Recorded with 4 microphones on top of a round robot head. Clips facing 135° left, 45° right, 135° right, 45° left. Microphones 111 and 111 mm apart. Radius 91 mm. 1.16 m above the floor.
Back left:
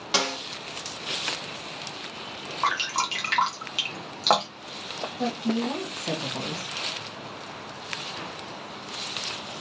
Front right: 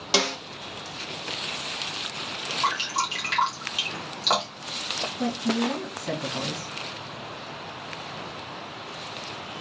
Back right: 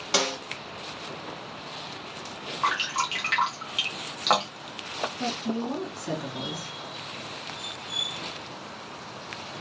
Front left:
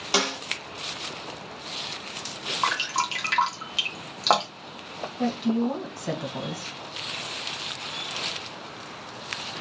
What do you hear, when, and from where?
0.1 s a snare drum: 20° right, 0.6 m
2.6 s dripping: 100° left, 1.0 m
5.2 s a woman speaking: 70° left, 1.3 m